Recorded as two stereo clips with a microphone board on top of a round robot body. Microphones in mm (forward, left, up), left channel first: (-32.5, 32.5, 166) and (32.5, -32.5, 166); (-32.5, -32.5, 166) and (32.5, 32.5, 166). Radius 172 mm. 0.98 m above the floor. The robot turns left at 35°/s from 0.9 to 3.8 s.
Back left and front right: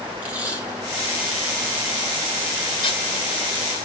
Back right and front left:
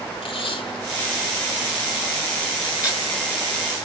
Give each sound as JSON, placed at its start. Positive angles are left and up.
{"t": 0.2, "sound": "tape being pulled", "azimuth_deg": -120, "distance_m": 6.5}